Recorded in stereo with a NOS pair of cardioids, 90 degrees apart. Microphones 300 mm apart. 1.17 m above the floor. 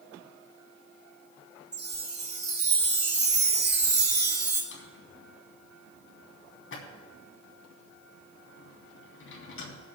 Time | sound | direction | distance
1.7 | a chime | 35° right | 2.5 m
4.7 | a drawer | 45° left | 3 m